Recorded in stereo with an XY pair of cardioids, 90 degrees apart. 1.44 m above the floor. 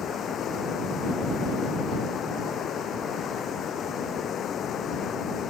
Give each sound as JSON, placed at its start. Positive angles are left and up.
{"t": 0.0, "sound": "running water", "azimuth_deg": 70}